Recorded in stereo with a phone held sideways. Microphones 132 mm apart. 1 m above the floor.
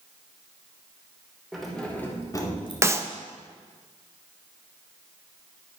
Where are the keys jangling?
Centre (ahead or behind), 2.5 m; by 2.7 s 45° left (ahead or behind), 2 m.